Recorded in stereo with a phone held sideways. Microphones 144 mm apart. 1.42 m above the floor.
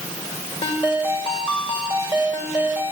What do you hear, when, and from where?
0.6 s a ringtone: 35° left (ahead or behind), 4.5 m